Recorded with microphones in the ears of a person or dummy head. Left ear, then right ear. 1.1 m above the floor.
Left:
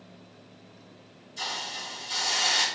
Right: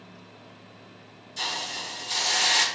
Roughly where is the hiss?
Right.